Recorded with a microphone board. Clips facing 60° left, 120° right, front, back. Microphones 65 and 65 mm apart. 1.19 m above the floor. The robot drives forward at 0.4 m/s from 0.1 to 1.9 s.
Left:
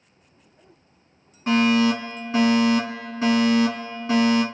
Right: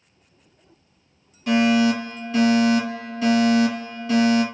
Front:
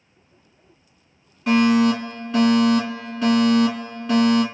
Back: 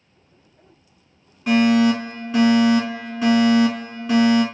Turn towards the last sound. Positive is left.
turn(degrees=105)